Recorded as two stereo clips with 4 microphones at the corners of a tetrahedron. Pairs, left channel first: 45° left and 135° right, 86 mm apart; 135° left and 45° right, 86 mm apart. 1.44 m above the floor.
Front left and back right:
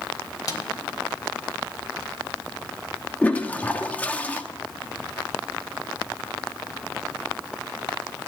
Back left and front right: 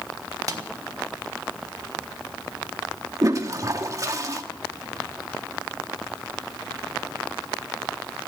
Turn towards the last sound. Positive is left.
turn(degrees=-20)